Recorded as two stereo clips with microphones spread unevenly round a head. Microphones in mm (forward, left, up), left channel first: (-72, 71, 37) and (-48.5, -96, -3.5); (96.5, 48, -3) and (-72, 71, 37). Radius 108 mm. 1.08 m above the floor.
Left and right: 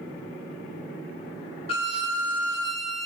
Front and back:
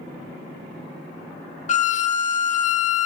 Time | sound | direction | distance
1.7 | a violin | 45° left | 0.8 m